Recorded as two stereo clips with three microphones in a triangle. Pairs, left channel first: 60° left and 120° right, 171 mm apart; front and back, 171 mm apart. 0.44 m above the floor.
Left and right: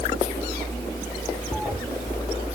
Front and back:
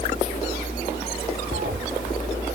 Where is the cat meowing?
155° left.